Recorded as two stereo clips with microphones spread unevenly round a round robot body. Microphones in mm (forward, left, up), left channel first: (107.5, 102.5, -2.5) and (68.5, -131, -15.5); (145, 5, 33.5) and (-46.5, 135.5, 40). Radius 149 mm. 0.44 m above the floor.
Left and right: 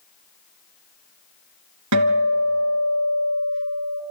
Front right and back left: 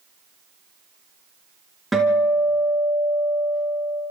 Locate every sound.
1.9 s a guitar: 125° right, 1.9 m